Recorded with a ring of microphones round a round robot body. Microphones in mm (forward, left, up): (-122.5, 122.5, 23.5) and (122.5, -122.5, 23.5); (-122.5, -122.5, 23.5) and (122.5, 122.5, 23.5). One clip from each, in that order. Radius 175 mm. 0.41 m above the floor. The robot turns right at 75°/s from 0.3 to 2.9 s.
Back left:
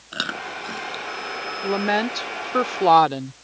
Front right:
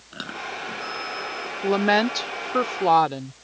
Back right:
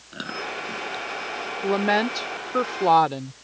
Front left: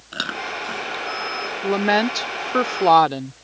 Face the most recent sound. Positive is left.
turn(degrees=75)